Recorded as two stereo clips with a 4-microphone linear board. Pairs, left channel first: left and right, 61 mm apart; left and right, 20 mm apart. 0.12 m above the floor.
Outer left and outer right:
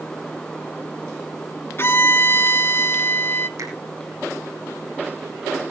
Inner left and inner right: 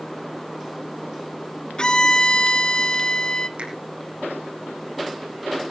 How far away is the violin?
About 0.9 m.